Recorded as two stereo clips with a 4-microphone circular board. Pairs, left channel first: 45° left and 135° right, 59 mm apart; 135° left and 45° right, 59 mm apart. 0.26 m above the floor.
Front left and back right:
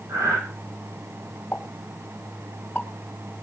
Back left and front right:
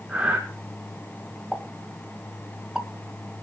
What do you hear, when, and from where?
0.1 s breathing: 120° right, 2.5 m
1.5 s a pop: 15° left, 1.8 m